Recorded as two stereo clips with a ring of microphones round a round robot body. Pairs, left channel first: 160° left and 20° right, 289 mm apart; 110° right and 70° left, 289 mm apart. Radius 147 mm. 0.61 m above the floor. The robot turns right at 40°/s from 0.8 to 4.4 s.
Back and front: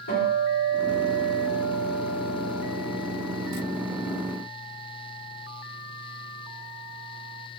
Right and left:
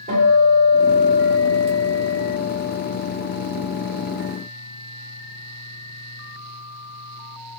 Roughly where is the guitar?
Behind left.